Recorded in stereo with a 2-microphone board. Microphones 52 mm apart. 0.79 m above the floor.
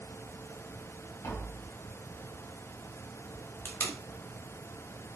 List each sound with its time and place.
1.2 s tapping: 85° left, 5 m
3.6 s tape being pulled: 45° left (ahead or behind), 3 m